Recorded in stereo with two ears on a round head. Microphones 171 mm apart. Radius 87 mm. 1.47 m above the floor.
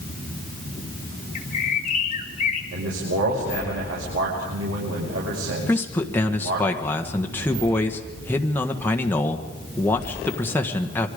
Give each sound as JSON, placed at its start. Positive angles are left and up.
{"t": 1.4, "sound": "a bird", "side_deg": 35, "distance_m": 1.9}
{"t": 2.7, "sound": "a man speaking", "side_deg": -85, "distance_m": 6.0}
{"t": 5.7, "sound": "a man speaking", "side_deg": 10, "distance_m": 1.4}